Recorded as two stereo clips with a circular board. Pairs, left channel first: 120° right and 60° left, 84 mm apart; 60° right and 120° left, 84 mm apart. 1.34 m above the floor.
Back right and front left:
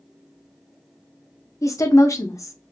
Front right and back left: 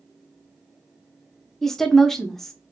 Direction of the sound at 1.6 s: 145° right.